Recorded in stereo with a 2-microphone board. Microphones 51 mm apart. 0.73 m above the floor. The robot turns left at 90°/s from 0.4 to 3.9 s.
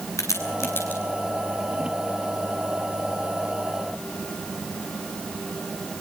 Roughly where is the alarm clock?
I don't hear an alarm clock.